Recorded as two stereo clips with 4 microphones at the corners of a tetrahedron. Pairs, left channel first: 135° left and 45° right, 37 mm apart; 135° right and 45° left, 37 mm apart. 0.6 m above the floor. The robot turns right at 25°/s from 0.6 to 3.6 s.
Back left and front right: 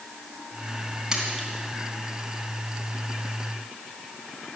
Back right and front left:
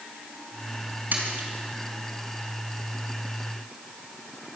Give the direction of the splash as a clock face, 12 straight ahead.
11 o'clock.